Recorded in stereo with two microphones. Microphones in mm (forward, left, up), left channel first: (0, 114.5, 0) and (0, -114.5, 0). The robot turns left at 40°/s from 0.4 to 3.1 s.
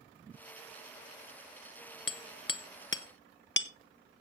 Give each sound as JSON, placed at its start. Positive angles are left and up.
{"t": 2.1, "sound": "hammering", "side_deg": 70, "distance_m": 0.7}